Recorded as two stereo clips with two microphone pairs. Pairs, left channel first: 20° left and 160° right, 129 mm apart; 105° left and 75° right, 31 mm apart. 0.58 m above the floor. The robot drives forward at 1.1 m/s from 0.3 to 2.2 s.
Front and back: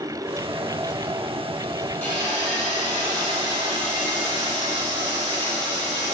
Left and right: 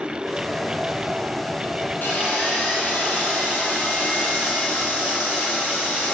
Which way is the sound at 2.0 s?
100° left.